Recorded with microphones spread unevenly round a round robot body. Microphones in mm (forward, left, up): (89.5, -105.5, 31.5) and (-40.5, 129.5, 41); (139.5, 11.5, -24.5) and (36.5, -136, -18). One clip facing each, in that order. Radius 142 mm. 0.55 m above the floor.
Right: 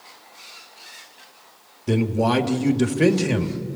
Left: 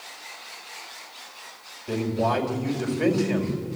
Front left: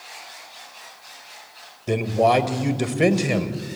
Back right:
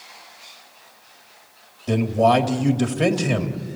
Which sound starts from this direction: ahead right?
A man speaking, at 1.9 s.